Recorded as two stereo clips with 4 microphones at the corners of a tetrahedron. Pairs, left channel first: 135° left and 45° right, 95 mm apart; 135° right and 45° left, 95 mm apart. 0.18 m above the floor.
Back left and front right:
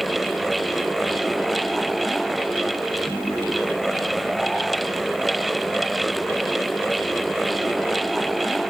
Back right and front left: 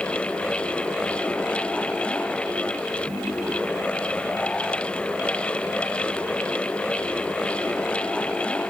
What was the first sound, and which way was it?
Only background noise.